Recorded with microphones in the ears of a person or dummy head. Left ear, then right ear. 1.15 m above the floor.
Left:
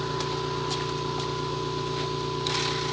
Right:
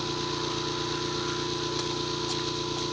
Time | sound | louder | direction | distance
0.0 | an engine running | left 1 dB | 40° right (ahead or behind) | 9 m